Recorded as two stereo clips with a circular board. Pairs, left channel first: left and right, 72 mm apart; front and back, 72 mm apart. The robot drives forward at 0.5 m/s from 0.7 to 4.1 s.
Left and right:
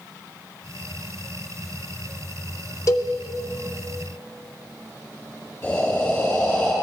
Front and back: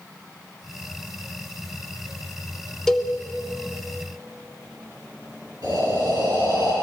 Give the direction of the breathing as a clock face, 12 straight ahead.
7 o'clock.